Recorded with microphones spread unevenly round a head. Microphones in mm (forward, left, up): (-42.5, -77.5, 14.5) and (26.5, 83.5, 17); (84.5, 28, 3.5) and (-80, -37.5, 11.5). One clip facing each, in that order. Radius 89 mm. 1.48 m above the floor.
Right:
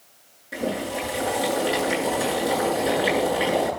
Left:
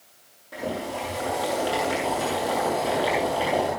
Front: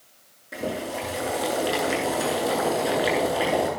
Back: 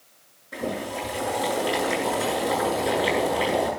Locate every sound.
0.5 s boiling: 40° right, 8.5 m